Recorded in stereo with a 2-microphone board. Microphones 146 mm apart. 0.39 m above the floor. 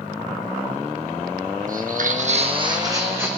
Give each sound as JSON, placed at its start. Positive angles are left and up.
{"t": 1.7, "sound": "footsteps", "side_deg": -70, "distance_m": 1.1}